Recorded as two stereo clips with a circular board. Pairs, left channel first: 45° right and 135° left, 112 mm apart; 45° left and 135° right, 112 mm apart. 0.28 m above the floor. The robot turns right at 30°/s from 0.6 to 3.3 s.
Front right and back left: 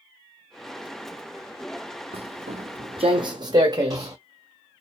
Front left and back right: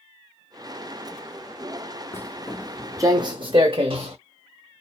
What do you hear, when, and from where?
2.1 s footsteps: 110° left, 0.6 m; by 4.2 s 165° right, 1.3 m